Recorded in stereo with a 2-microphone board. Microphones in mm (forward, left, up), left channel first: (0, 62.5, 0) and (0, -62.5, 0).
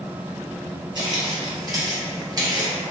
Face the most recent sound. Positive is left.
turn(degrees=-25)  # may be behind; listen again after turning